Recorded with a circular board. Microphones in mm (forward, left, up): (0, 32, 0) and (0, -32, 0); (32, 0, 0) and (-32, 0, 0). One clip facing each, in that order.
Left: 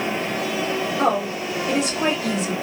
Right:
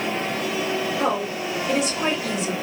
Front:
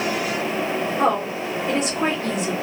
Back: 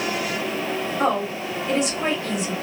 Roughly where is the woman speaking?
Ahead left.